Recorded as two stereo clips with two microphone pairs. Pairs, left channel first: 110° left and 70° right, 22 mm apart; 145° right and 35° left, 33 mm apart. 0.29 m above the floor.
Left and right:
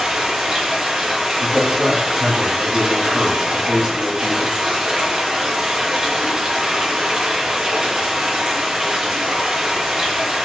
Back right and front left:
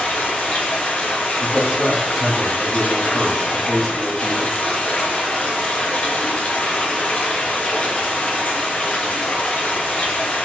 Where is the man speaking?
55° right, 1.3 m.